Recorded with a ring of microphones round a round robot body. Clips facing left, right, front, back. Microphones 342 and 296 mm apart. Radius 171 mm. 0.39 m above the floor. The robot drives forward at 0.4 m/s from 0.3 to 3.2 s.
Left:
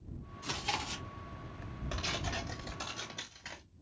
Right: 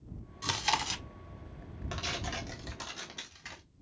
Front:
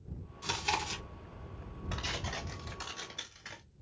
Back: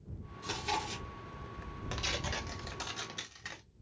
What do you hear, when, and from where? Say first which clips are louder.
0.4 s chewing: right 3 dB, even; 70° right, 1.4 m; by 1.0 s 80° right, 1.4 m
1.9 s tearing paper: even, back 2 dB; 160° right, 1.8 m; by 3.6 s 165° right, 2 m